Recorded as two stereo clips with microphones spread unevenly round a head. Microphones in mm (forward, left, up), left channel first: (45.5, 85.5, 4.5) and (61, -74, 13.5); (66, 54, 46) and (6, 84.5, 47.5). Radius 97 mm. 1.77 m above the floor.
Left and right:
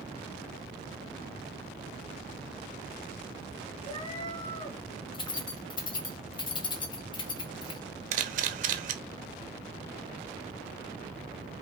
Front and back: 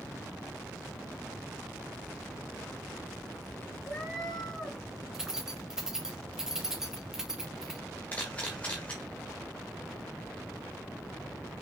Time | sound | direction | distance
3.8 | a cat meowing | 50° left | 1.9 m
5.1 | keys jangling | 85° left | 0.9 m
8.1 | a camera shutter | 110° right | 0.6 m